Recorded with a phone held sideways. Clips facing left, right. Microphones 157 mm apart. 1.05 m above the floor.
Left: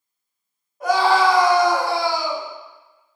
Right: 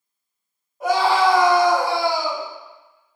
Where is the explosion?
No explosion in this recording.